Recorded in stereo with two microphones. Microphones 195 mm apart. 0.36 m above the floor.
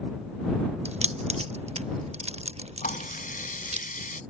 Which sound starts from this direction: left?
A running tap, at 2.8 s.